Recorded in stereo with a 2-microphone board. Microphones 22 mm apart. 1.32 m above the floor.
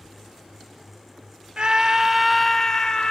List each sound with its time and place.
1.6 s a scream: 50° right (ahead or behind), 0.8 m; by 3.1 s 30° left (ahead or behind), 0.9 m